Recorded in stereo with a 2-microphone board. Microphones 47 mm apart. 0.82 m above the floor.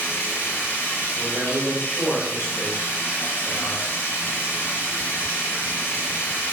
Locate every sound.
0.0 s running water: 50° left (ahead or behind), 1.9 m
1.1 s a man speaking: 40° left (ahead or behind), 1.7 m